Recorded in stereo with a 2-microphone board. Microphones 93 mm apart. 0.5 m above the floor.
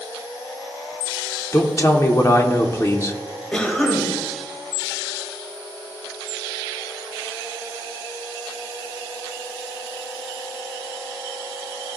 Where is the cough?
10° left (ahead or behind), 2.5 m.